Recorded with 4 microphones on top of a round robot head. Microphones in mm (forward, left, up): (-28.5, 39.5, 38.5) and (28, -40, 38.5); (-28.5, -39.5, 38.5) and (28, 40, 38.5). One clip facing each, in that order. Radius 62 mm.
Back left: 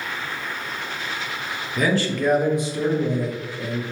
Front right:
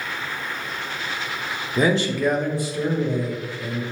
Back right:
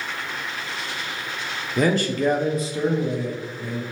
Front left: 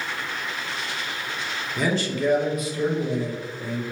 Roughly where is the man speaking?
Right.